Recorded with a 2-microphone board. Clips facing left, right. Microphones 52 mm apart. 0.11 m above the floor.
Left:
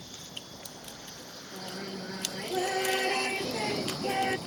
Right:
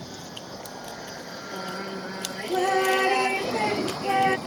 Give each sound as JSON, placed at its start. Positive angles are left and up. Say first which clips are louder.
{"t": 0.0, "sound": "an aircraft", "louder": "right 7 dB", "side_deg": -70}
{"t": 1.5, "sound": "singing", "louder": "right 6 dB", "side_deg": -40}